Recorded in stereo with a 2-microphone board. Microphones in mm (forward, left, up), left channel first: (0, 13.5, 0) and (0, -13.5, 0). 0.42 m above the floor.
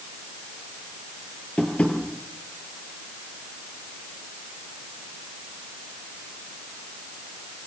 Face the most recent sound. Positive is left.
turn(degrees=50)  # may be behind; listen again after turning